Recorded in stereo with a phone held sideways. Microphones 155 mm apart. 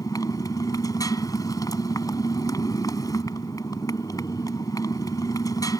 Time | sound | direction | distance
0.0 | a motorcycle | 25° left (ahead or behind) | ?